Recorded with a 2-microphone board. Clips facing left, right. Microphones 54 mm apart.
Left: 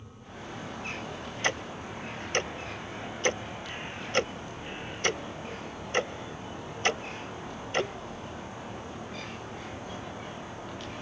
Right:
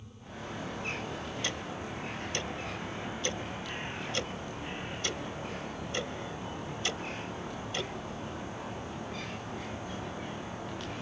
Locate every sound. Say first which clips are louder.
1.4 s ticking: left 5 dB; 55° left (ahead or behind), 0.6 m